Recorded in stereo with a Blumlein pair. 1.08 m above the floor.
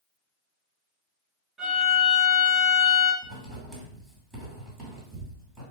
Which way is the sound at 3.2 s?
5° right.